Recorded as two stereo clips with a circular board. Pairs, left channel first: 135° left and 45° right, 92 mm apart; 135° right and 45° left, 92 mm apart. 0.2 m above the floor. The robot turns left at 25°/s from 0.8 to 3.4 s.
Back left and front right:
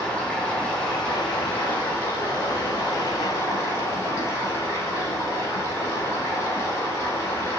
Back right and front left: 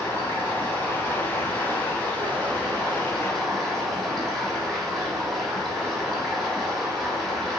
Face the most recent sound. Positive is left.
turn(degrees=135)